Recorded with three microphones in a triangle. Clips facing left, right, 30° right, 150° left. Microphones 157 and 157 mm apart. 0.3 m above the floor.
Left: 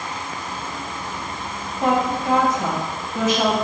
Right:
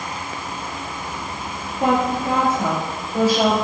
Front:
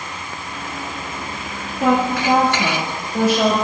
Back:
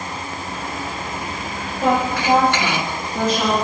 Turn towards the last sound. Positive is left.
turn(degrees=-35)